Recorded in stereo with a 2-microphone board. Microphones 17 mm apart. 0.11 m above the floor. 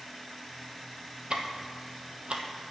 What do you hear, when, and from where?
1.3 s ticking: 70° right (ahead or behind), 1.3 m